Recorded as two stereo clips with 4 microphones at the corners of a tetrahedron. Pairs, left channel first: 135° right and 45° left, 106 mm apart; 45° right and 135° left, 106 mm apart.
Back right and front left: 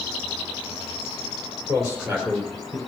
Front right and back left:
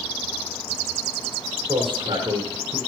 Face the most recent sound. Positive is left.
turn(degrees=125)